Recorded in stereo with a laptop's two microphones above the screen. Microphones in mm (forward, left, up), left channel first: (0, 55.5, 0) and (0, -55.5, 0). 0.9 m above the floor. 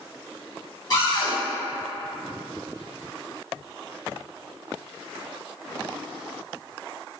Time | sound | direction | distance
0.9 | a cupboard door | 40° left (ahead or behind) | 1.9 m